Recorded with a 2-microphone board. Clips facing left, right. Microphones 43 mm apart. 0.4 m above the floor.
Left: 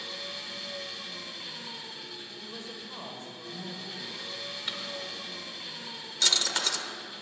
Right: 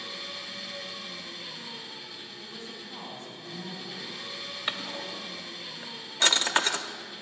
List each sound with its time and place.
0.0 s an engine running: 5° left (ahead or behind), 1.7 m
2.4 s a woman speaking: 45° left (ahead or behind), 1.8 m
4.7 s a drawer: 35° right (ahead or behind), 0.6 m